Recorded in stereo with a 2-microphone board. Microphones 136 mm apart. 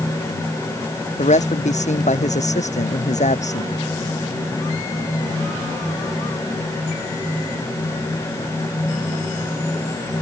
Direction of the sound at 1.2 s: 60° left (ahead or behind).